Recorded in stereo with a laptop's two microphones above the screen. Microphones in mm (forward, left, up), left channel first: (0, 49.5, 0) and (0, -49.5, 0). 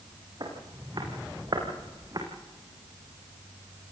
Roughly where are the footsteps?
Right.